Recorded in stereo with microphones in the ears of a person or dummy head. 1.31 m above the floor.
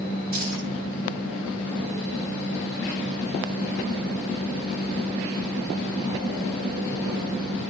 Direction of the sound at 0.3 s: 55° right (ahead or behind).